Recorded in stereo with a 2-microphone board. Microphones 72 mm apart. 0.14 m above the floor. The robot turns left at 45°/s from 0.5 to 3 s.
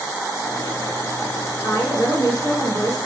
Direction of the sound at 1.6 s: 135° left.